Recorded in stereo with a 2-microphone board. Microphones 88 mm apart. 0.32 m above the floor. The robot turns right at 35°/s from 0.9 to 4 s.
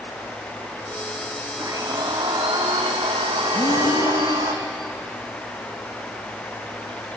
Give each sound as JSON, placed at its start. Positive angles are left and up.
{"t": 1.6, "sound": "a blender", "azimuth_deg": -145, "distance_m": 3.0}
{"t": 3.5, "sound": "breathing", "side_deg": 65, "distance_m": 4.0}